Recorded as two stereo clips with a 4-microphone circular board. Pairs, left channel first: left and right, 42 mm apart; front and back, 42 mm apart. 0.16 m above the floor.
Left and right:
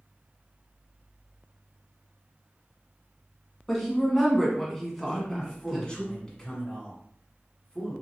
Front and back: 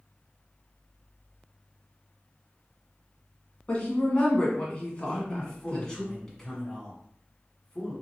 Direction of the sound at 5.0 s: 60° left.